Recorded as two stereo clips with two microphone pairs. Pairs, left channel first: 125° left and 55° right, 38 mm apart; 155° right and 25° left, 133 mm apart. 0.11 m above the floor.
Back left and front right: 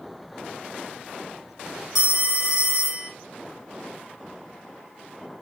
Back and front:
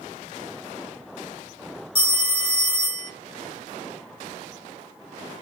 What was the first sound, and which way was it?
A phone ringing, 135° right.